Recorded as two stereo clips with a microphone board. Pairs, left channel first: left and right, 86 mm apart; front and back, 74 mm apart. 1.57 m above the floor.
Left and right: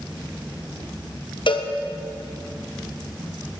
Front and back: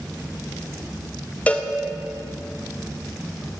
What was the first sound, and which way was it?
A cowbell, 70° left.